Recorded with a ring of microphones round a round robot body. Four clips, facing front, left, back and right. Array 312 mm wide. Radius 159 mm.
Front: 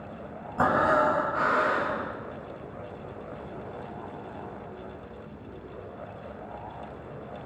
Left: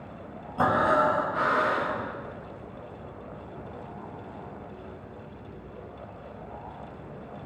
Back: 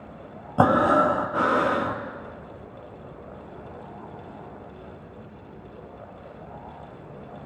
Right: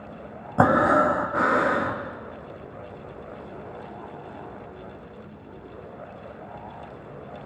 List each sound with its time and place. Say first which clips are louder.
0.6 s breathing: right 4 dB, back 4 dB; 135° right, 0.9 m